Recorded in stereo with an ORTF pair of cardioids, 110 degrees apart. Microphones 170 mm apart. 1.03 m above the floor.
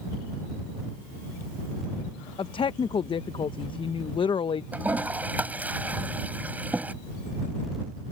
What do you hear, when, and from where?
2.4 s a woman speaking: 30° left
4.7 s a toilet flushing: 10° right